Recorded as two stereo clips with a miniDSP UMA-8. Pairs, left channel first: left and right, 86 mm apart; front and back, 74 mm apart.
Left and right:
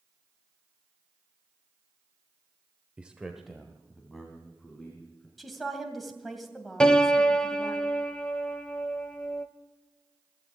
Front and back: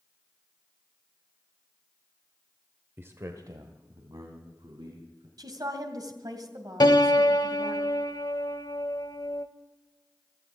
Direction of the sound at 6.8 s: 10° left.